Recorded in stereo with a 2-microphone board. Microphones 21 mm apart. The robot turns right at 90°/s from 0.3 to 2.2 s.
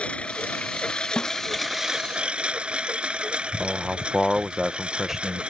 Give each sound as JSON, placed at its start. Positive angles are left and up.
{"t": 0.0, "sound": "a lawn mower", "azimuth_deg": 60}
{"t": 1.2, "sound": "a snare drum", "side_deg": 65}
{"t": 3.6, "sound": "a man speaking", "side_deg": -10}